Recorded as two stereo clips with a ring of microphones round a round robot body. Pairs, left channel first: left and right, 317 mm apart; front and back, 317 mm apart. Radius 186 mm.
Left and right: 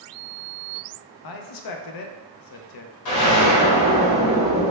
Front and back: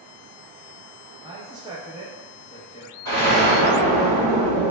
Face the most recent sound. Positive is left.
turn(degrees=80)